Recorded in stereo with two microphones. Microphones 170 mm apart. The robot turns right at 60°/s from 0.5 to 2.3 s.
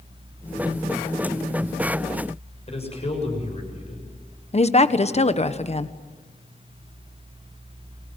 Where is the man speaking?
40° left (ahead or behind), 7.5 m.